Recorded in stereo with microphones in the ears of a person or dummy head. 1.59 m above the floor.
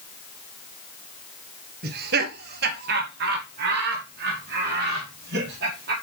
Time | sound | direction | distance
1.8 | laughter | 60° right (ahead or behind) | 1.5 m